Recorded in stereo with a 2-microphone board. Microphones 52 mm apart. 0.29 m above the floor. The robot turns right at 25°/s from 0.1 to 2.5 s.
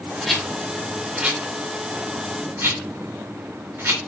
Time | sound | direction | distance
0.2 | a rattle | 5° left (ahead or behind) | 4 m